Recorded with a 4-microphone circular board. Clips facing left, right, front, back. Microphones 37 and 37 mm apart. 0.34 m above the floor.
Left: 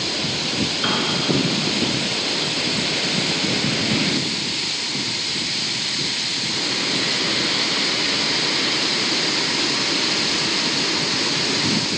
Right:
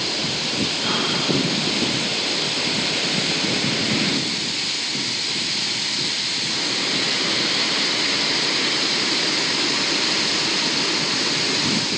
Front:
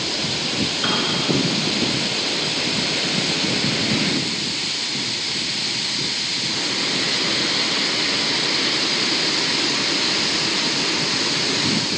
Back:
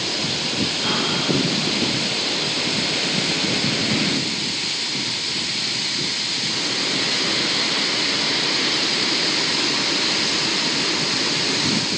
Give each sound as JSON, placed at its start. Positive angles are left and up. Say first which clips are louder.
{"t": 0.8, "sound": "a piano", "louder": "left 2 dB, front 2 dB", "azimuth_deg": 45, "distance_m": 3.5}